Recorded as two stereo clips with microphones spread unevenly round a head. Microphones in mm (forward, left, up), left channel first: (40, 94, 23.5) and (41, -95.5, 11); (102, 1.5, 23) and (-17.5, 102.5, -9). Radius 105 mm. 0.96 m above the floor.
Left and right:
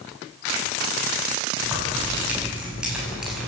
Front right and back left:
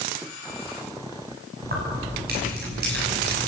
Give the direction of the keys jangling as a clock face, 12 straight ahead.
6 o'clock.